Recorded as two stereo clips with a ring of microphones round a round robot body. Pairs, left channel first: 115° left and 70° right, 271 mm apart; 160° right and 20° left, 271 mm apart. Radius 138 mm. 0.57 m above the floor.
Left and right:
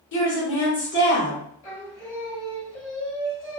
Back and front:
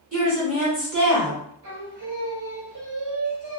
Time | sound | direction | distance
0.1 | a woman speaking | 75° left | 1.6 m
1.6 | singing | 35° left | 1.7 m